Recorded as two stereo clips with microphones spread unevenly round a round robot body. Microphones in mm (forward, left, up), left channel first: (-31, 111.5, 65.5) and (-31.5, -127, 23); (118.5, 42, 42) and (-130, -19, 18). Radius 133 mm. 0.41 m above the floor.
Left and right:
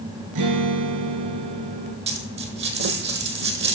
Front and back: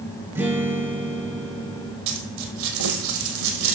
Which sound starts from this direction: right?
A guitar, at 0.3 s.